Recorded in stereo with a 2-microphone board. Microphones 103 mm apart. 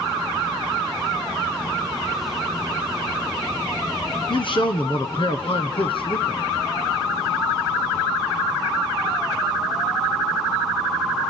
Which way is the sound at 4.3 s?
55° left (ahead or behind).